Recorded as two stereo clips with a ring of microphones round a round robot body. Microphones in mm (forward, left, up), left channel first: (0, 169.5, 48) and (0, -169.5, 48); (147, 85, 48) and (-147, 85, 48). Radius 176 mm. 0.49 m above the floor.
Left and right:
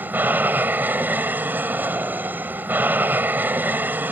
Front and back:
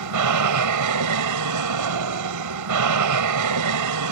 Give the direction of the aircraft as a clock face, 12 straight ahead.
6 o'clock.